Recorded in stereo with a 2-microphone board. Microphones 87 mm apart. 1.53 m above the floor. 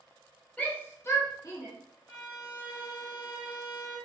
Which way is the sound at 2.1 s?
60° left (ahead or behind).